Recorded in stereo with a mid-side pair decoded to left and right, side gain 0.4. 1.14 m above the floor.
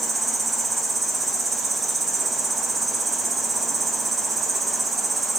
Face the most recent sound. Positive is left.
turn(degrees=-45)